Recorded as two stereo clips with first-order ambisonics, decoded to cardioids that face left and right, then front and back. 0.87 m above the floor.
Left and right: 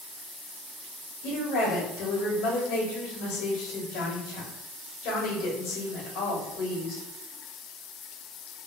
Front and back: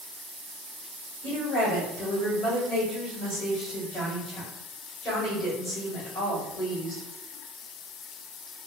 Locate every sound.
1.2 s a woman speaking: 65° left, 1.8 m